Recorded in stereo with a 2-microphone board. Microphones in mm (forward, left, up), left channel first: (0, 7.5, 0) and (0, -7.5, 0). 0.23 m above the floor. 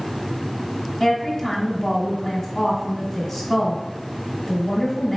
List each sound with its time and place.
1.0 s a woman speaking: 35° left (ahead or behind), 1.4 m